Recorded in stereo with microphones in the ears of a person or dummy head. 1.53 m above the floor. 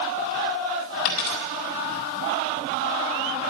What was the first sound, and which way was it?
A dropped coin, 55° left (ahead or behind).